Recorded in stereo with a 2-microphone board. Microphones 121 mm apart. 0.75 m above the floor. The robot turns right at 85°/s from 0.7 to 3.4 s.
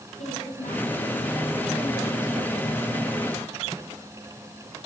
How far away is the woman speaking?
About 7 m.